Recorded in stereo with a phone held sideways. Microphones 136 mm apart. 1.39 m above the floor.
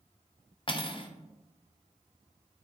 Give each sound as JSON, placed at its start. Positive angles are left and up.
{"t": 0.7, "sound": "cutlery clinking", "side_deg": 40, "distance_m": 0.7}